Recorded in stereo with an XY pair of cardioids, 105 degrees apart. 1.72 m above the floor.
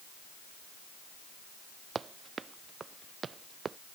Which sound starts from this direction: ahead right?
Running footsteps, at 1.9 s.